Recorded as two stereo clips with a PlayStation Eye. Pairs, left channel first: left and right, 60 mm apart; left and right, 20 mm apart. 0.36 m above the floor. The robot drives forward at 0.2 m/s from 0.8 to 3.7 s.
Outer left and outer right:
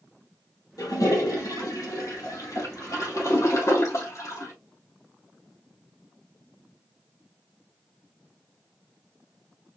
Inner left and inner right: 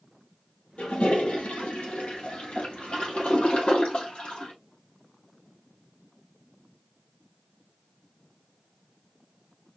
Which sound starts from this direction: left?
A toilet flushing, at 0.8 s.